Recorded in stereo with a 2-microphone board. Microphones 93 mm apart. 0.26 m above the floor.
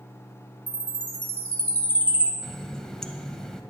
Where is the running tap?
5° left (ahead or behind), 0.7 m.